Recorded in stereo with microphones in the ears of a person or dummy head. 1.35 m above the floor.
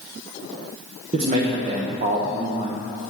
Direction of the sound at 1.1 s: 45° right (ahead or behind).